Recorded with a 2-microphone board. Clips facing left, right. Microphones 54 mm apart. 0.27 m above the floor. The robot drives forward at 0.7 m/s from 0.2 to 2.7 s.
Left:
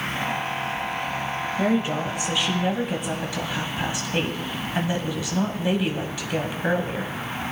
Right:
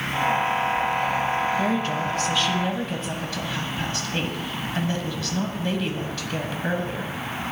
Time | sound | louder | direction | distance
1.6 | a woman speaking | left 1 dB | 15° left (ahead or behind) | 1.2 m